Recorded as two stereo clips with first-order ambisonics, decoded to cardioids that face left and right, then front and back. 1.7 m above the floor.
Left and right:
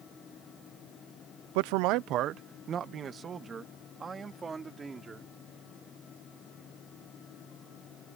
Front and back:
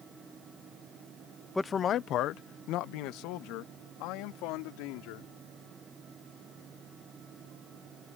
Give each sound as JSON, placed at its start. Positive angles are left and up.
{"t": 1.6, "sound": "a man speaking", "azimuth_deg": -85}